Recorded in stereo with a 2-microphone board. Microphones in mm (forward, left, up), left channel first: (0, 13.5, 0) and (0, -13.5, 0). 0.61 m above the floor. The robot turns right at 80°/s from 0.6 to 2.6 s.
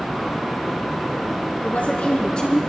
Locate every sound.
1.6 s a woman speaking: 80° left, 5 m; by 2.6 s 155° left, 5 m